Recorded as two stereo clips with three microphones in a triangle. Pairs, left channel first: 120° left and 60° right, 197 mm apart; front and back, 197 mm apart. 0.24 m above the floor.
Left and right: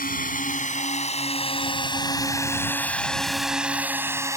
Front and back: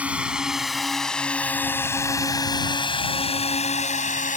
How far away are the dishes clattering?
I don't hear dishes clattering.